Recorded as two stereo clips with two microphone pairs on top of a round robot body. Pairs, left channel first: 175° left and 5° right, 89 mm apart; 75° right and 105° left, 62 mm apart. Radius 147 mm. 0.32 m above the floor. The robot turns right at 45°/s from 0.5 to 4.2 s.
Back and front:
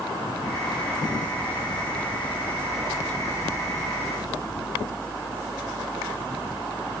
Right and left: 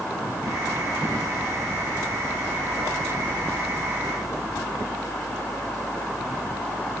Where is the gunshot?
No gunshot in this recording.